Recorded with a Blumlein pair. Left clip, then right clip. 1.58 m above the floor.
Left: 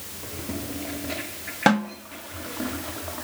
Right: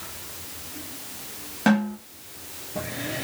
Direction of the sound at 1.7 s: 20° left.